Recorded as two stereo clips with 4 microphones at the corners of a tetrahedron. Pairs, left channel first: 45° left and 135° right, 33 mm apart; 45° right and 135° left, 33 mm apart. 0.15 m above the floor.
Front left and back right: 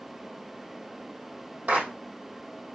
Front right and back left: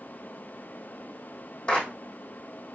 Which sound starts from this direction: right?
A clap, at 1.7 s.